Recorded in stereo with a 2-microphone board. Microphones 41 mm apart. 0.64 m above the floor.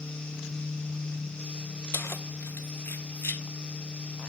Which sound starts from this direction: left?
Keys jangling, at 1.9 s.